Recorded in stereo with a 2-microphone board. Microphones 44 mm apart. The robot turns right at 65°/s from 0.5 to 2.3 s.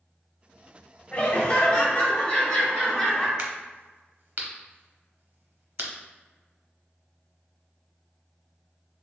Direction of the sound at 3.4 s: 40° right (ahead or behind).